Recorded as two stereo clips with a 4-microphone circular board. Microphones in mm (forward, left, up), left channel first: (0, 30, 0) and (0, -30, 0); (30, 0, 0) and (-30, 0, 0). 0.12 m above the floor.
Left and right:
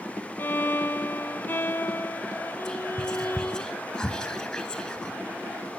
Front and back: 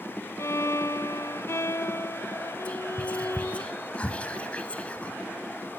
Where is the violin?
35° left, 0.6 m.